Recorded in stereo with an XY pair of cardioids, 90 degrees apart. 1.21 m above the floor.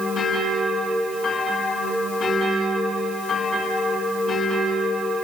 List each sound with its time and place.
Only background noise.